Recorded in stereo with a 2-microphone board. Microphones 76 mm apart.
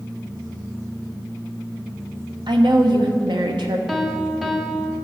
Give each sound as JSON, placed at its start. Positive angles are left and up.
{"t": 2.5, "sound": "a woman speaking", "side_deg": -85, "distance_m": 1.1}
{"t": 3.9, "sound": "a piano", "side_deg": 0, "distance_m": 1.0}